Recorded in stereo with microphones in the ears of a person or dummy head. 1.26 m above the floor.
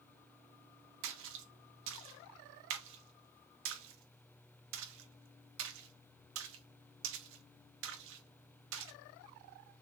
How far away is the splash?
About 0.6 m.